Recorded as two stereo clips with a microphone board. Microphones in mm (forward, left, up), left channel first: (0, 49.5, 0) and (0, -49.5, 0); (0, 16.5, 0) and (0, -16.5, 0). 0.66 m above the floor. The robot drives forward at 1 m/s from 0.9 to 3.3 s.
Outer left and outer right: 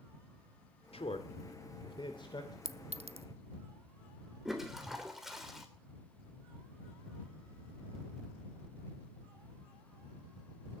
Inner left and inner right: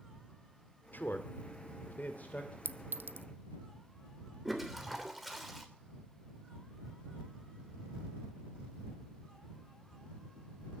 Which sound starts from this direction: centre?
A toilet flushing, at 4.5 s.